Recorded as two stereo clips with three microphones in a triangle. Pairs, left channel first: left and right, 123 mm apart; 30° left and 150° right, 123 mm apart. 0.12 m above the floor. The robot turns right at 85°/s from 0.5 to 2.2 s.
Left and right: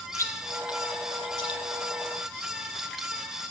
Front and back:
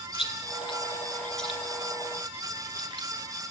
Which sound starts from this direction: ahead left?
Chewing, at 0.1 s.